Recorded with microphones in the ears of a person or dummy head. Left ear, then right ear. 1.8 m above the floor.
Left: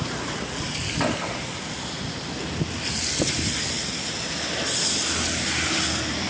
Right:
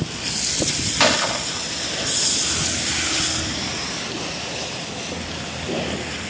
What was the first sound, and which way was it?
A gunshot, 45° right (ahead or behind).